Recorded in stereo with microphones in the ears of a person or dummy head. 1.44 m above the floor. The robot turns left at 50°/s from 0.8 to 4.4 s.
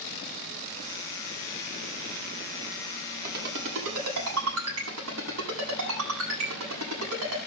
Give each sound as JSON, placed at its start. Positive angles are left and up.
{"t": 3.2, "sound": "a ringtone", "side_deg": -45, "distance_m": 8.5}